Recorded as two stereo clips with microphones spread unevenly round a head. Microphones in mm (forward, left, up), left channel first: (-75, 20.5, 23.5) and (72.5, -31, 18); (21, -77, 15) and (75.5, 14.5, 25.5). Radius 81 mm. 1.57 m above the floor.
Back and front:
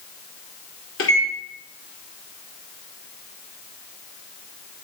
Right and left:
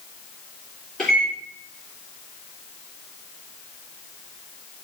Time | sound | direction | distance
1.0 | a microwave | 150° left | 3 m